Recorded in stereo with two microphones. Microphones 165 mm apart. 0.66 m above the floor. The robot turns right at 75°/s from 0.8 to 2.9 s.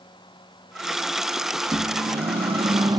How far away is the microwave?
About 0.7 m.